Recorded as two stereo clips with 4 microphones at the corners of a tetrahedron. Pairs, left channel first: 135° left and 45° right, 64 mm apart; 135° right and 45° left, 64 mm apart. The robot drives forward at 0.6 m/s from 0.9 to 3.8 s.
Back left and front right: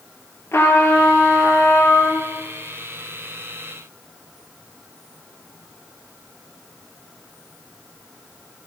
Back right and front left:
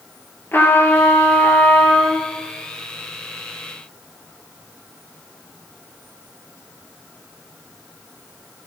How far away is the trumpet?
About 3.5 m.